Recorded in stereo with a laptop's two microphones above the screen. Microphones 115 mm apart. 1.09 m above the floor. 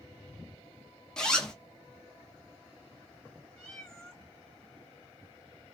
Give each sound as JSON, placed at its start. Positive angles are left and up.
{"t": 1.2, "sound": "a zipper", "side_deg": 5, "distance_m": 0.8}
{"t": 3.6, "sound": "a cat meowing", "side_deg": 5, "distance_m": 1.2}